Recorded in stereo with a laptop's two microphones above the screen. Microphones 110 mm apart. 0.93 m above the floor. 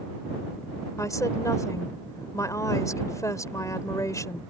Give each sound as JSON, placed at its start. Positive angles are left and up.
{"t": 1.0, "sound": "a woman speaking", "side_deg": 30}